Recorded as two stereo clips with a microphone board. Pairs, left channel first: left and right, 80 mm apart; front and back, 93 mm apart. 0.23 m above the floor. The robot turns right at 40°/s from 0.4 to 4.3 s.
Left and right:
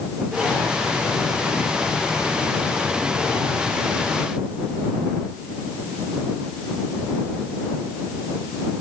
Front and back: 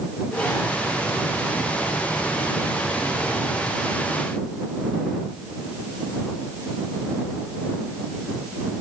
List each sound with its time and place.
Only background noise.